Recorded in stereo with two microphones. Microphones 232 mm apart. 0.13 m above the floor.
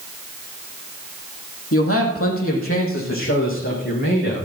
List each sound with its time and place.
1.7 s a man speaking: 70° left (ahead or behind), 3.5 m; by 4.5 s 55° left (ahead or behind), 6.5 m